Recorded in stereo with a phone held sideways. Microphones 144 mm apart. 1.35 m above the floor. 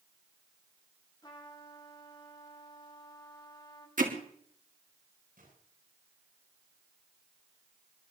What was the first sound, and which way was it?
A trumpet, 30° left (ahead or behind).